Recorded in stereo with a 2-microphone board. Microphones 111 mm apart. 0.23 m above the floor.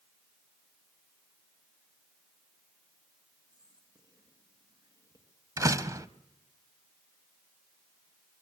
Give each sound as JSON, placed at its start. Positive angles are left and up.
{"t": 3.5, "sound": "whispering", "side_deg": -40, "distance_m": 3.0}
{"t": 5.6, "sound": "a door slam", "side_deg": -30, "distance_m": 0.9}